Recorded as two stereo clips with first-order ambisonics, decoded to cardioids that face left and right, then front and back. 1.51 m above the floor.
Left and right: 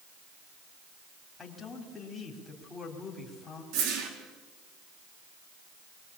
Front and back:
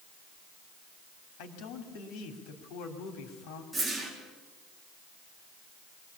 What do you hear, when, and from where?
1.4 s a man speaking: 10° left, 3.5 m
3.7 s a whoosh: 95° right, 4 m